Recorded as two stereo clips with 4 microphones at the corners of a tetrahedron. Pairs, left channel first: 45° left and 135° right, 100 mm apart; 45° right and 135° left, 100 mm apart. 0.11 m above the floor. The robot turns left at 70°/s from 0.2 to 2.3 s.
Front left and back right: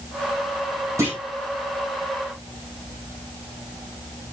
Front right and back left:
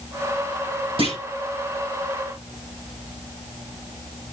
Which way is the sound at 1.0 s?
165° left.